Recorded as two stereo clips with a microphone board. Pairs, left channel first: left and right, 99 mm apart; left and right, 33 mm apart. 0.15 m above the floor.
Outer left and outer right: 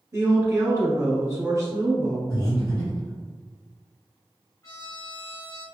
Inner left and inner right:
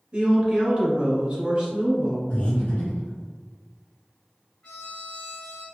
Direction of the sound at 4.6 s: 30° left (ahead or behind).